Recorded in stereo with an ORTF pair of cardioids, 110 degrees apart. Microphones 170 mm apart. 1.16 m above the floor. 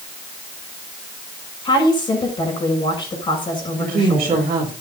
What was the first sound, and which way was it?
A woman speaking, 30° left.